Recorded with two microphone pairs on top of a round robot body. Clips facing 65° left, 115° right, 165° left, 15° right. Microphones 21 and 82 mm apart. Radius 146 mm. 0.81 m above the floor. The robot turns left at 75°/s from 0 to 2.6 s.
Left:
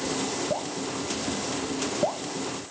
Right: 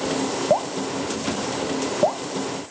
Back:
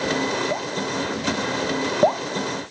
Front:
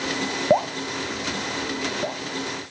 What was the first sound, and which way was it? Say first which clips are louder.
Dripping: right 8 dB, front 5 dB; 65° right.